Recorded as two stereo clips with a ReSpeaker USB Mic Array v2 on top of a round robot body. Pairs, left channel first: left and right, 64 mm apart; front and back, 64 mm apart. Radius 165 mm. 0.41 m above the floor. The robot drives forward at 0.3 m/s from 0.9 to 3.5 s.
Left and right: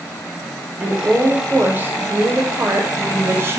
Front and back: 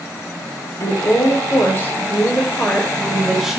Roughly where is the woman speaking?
Ahead right.